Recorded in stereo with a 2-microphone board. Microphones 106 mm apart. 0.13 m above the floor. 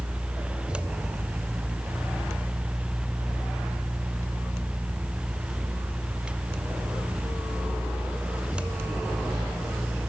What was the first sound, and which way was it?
Only background noise.